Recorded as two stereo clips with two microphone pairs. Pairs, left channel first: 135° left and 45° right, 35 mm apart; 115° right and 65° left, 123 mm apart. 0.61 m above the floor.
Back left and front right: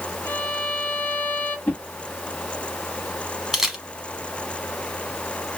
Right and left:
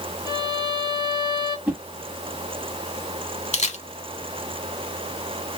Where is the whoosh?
140° left, 1.7 m.